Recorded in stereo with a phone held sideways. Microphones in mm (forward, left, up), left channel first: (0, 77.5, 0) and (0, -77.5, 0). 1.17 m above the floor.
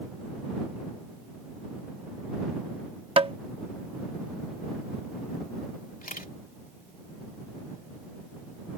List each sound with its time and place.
3.2 s tapping: 40° right (ahead or behind)
6.0 s a camera shutter: 75° left (ahead or behind)